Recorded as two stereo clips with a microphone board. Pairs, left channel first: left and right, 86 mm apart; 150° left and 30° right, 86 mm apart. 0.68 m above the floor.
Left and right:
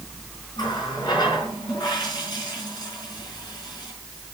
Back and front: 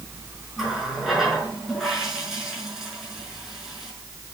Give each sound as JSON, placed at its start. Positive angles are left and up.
{"t": 0.6, "sound": "a running tap", "azimuth_deg": 55, "distance_m": 5.0}